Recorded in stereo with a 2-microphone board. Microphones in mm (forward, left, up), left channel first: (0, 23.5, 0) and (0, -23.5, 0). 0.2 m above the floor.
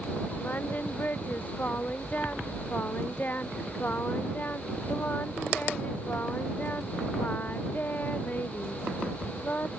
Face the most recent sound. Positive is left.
turn(degrees=40)  # may be behind; listen again after turning